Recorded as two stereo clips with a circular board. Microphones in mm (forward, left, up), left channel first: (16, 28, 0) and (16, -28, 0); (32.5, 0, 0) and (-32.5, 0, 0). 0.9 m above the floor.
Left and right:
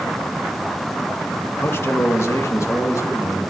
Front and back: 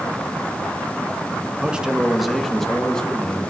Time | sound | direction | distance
1.6 | a man speaking | 115° left | 1.3 m